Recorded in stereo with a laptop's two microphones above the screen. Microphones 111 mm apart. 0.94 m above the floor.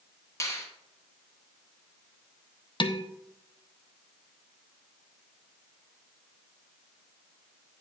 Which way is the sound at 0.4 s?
25° left (ahead or behind).